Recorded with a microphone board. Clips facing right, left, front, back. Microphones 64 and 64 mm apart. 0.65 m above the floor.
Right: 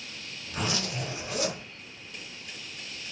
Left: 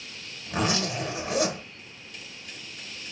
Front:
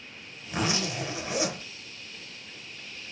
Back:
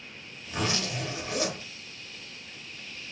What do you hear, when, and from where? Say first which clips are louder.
0.5 s a zipper: left 5 dB, front 2 dB; 70° left, 1.7 m